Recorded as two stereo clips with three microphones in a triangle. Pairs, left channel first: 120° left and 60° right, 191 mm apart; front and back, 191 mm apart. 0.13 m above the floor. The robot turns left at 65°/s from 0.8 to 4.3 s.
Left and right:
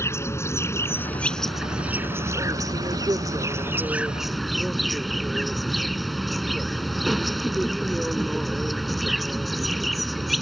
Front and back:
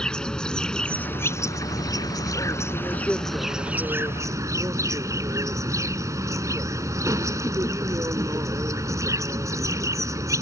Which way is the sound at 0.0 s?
75° left.